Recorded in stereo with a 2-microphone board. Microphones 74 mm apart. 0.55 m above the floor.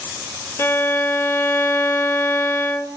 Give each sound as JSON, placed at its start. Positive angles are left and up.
{"t": 0.6, "sound": "a violin", "side_deg": 35, "distance_m": 0.8}